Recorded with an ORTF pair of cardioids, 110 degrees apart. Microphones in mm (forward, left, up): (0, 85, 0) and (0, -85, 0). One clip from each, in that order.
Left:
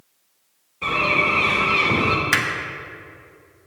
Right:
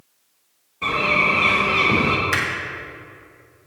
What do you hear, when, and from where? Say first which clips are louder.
0.8 s a bird: right 1 dB; 5° right, 2.5 m
2.3 s hammering: left 2 dB; 30° left, 1.2 m